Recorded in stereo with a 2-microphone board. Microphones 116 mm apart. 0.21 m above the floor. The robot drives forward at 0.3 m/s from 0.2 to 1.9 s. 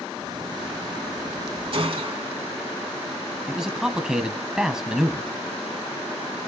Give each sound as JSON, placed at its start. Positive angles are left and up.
{"t": 1.7, "sound": "a gunshot", "side_deg": -50, "distance_m": 2.0}
{"t": 3.5, "sound": "a man speaking", "side_deg": -5, "distance_m": 1.2}